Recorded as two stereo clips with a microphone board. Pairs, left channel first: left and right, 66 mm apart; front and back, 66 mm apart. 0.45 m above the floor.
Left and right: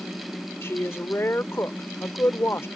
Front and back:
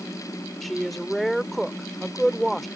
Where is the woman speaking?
90° left.